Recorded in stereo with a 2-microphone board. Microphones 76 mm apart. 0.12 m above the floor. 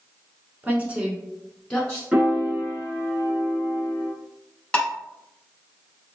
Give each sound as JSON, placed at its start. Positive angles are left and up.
{"t": 0.6, "sound": "a woman speaking", "side_deg": -25, "distance_m": 1.2}
{"t": 2.1, "sound": "a piano", "side_deg": -15, "distance_m": 1.4}
{"t": 4.7, "sound": "dishes clattering", "side_deg": 10, "distance_m": 0.7}